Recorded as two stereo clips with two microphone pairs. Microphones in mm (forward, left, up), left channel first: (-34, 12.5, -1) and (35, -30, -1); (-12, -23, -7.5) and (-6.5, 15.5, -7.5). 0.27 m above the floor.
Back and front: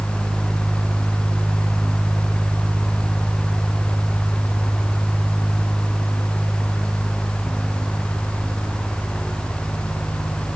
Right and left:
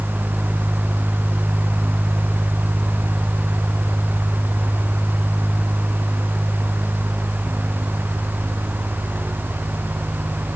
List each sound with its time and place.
Only background noise.